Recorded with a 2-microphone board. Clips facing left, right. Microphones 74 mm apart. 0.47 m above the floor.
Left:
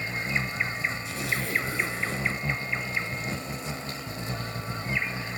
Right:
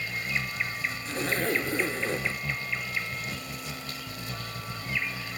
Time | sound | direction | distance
0.0 | an insect | 30° left (ahead or behind) | ?
1.1 | a zipper | 45° right (ahead or behind) | ?